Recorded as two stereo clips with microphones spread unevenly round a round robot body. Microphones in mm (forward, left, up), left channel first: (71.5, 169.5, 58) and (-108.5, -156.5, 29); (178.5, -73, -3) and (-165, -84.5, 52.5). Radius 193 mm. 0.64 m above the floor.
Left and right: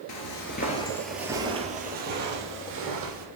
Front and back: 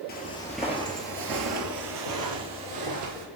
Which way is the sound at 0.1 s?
70° left.